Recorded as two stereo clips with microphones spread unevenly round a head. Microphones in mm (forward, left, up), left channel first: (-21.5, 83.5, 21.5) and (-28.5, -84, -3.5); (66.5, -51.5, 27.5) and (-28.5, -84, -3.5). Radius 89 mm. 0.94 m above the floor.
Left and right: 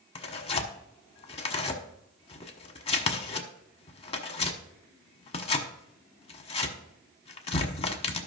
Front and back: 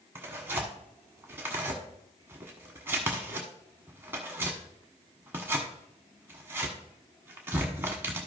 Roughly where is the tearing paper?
Left.